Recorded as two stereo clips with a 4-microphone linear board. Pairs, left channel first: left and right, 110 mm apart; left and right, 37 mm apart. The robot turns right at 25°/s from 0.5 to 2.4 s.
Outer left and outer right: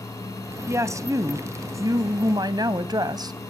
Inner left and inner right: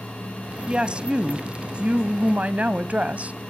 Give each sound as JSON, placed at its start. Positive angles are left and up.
{"t": 0.7, "sound": "a woman speaking", "azimuth_deg": -135, "distance_m": 1.2}